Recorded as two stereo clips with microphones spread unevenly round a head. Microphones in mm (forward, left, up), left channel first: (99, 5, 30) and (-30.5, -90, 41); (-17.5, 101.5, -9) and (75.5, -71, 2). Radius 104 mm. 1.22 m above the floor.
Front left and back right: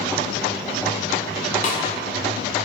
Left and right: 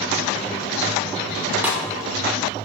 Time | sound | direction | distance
1.6 | a snare drum | 15° left | 1.1 m